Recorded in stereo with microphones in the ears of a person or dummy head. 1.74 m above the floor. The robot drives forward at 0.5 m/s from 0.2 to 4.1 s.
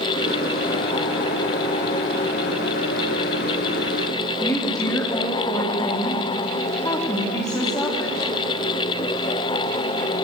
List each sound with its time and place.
4.4 s a woman speaking: 20° left (ahead or behind), 3.5 m